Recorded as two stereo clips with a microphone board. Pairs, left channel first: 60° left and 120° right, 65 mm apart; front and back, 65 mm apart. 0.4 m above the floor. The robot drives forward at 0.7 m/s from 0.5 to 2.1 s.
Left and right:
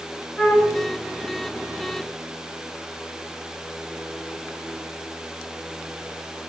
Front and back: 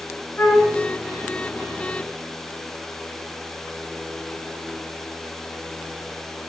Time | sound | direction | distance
0.4 | a flute | 15° left | 2.0 m